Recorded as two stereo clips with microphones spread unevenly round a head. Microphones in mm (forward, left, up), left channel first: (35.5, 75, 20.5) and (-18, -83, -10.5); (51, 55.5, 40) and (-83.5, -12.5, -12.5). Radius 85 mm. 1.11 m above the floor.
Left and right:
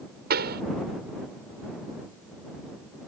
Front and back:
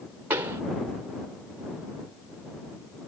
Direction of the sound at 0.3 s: 75° right.